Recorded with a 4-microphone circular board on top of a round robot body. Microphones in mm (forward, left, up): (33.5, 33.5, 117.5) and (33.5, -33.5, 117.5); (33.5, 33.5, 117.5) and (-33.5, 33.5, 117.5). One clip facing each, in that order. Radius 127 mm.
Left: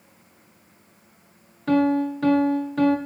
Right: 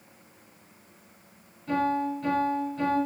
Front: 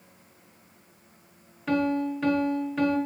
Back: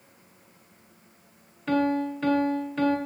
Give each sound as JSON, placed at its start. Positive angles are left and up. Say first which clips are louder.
{"t": 1.7, "sound": "a piano", "louder": "left 6 dB, back 1 dB", "azimuth_deg": 85, "distance_m": 5.5}